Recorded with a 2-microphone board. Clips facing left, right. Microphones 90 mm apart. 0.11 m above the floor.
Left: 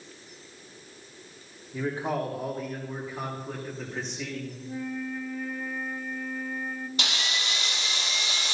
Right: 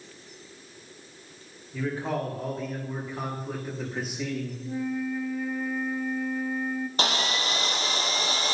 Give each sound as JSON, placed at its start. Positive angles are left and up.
{"t": 1.7, "sound": "a man speaking", "side_deg": 20, "distance_m": 6.5}
{"t": 4.6, "sound": "a flute", "side_deg": -5, "distance_m": 0.8}
{"t": 7.0, "sound": "sawing", "side_deg": -40, "distance_m": 0.9}